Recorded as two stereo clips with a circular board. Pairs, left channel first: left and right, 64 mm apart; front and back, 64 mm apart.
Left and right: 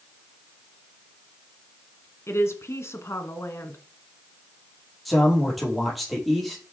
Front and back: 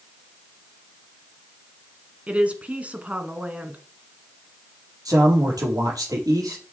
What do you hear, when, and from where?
2.3 s a woman speaking: 120° left, 1.6 m
5.0 s a man speaking: straight behind, 5 m